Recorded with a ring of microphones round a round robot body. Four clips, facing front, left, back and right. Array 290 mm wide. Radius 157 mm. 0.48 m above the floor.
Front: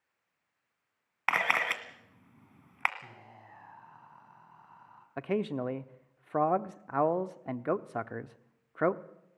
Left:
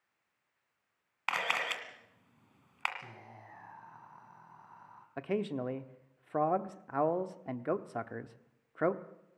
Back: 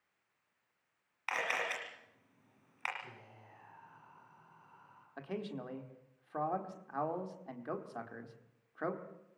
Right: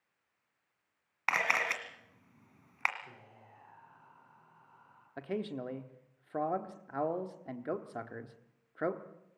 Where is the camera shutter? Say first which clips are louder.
Right 2 dB, front 7 dB; 15° right, 2 m.